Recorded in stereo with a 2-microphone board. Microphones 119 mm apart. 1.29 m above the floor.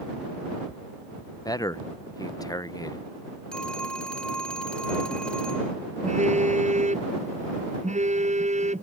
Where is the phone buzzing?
75° right (ahead or behind).